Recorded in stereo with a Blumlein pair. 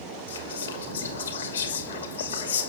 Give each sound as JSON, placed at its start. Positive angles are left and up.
{"t": 0.3, "sound": "whispering", "azimuth_deg": 70, "distance_m": 2.5}